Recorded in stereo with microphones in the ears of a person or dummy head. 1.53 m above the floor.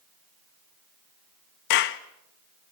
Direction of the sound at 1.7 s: 50° left (ahead or behind).